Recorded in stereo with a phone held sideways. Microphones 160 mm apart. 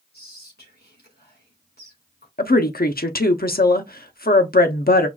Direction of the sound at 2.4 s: 70° left (ahead or behind).